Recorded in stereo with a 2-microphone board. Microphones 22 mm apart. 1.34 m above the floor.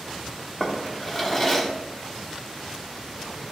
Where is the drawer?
20° left (ahead or behind), 1.1 m.